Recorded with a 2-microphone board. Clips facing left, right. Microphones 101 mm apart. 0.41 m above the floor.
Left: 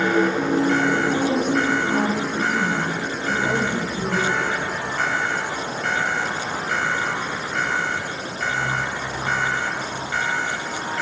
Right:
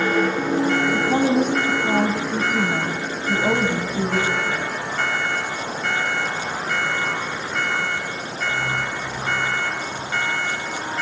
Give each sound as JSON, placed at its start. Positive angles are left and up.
{"t": 0.9, "sound": "a woman speaking", "side_deg": -55, "distance_m": 3.0}